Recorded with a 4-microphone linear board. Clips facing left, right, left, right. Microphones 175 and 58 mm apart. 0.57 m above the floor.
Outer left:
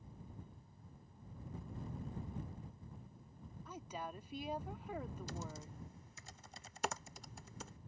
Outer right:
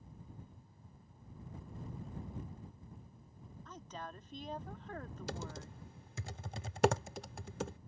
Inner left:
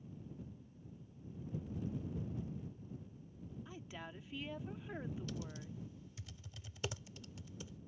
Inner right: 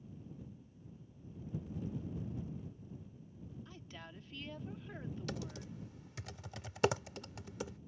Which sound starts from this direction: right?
Typing on a keyboard, at 5.3 s.